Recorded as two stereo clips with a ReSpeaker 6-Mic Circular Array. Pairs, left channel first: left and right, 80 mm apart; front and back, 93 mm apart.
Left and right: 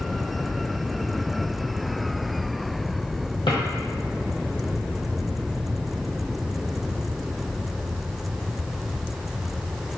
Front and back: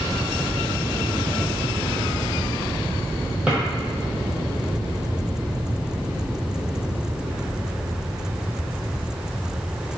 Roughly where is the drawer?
Left.